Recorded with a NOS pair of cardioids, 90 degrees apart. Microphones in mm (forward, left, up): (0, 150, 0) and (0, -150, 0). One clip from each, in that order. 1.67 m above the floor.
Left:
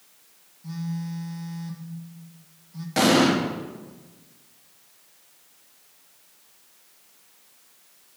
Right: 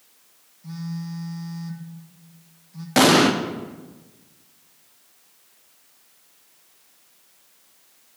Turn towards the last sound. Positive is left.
turn(degrees=-50)